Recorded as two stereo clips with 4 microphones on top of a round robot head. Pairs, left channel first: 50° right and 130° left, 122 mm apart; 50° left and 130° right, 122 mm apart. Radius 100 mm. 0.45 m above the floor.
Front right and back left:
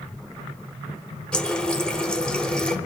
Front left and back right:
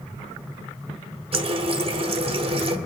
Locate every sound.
1.3 s a running tap: 130° right, 0.9 m